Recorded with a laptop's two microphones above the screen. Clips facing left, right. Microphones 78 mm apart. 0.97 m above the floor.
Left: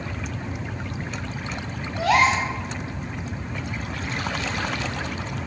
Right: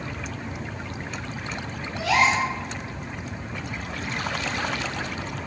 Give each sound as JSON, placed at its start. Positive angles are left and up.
{"t": 2.0, "sound": "a gasp", "side_deg": 45, "distance_m": 0.7}